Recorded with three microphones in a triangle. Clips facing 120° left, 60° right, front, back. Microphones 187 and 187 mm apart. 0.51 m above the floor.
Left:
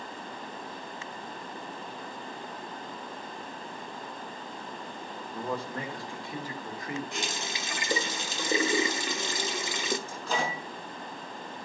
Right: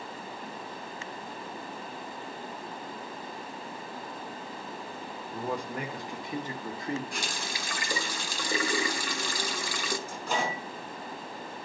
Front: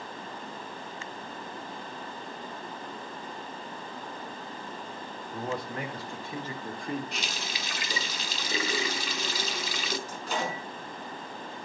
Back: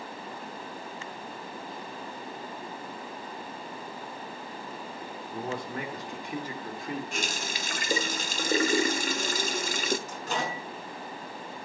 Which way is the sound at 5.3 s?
135° right.